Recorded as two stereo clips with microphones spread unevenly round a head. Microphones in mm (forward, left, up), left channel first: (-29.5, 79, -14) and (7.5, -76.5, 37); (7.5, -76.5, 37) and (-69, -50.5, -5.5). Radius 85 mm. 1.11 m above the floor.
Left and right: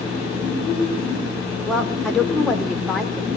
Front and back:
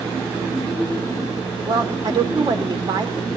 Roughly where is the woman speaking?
Behind.